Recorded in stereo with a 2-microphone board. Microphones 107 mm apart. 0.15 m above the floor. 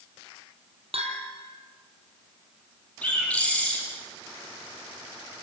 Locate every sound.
0.9 s a bell: 65° right (ahead or behind), 3.5 m
3.0 s a bird: 15° left (ahead or behind), 6 m